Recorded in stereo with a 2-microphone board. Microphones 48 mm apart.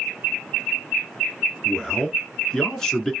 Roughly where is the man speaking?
Centre.